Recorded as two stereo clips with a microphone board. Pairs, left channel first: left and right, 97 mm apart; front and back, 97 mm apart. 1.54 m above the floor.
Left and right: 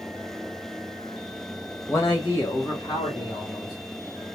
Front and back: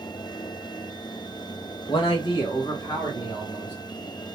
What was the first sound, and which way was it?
A man speaking, 25° left.